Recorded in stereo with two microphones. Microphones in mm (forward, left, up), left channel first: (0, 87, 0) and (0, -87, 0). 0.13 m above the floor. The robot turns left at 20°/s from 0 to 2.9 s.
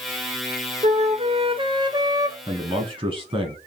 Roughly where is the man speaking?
Right.